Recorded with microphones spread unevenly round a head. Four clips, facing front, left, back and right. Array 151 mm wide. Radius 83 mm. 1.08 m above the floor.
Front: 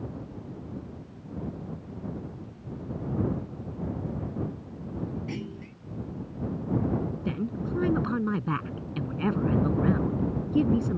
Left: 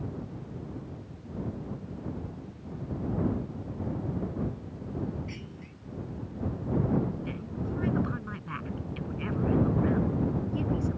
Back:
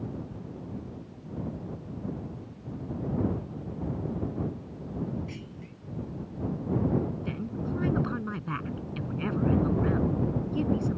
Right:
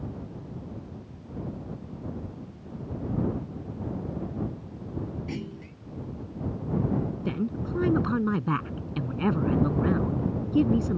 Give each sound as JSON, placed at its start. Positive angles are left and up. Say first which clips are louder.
{"t": 5.3, "sound": "a clunk", "louder": "right 7 dB, front 6 dB", "azimuth_deg": -40}
{"t": 7.2, "sound": "a woman speaking", "louder": "right 6 dB, front 3 dB", "azimuth_deg": -55}